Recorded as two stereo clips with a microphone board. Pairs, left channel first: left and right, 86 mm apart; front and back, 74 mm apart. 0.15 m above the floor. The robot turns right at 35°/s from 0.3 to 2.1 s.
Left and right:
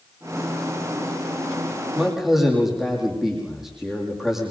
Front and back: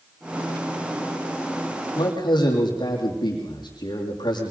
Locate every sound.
1.9 s a man speaking: 10° right, 6.5 m; by 4.5 s 5° right, 6.5 m